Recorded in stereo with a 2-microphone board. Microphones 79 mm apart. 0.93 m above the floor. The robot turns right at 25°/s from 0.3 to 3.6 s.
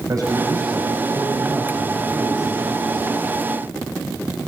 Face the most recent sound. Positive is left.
turn(degrees=35)